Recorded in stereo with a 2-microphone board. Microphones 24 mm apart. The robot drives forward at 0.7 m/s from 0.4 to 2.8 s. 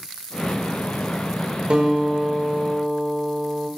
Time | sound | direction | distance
1.7 | a guitar | 55° right (ahead or behind) | 2.5 m